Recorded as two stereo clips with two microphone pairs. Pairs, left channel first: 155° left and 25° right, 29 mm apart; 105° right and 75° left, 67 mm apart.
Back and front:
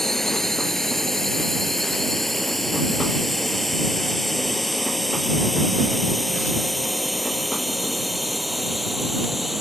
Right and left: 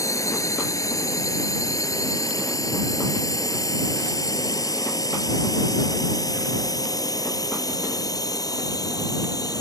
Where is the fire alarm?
I don't hear a fire alarm.